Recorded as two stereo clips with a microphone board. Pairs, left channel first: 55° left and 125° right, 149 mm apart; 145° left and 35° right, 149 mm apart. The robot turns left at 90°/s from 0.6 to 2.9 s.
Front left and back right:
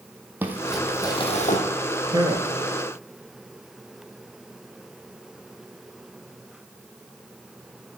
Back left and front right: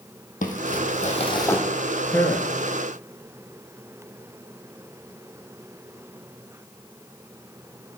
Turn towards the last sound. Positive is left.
turn(degrees=145)